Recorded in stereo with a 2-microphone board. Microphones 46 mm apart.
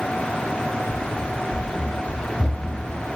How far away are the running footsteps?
About 3.5 m.